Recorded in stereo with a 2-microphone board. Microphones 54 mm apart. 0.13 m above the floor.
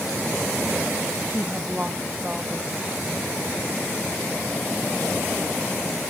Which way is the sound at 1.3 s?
25° right (ahead or behind).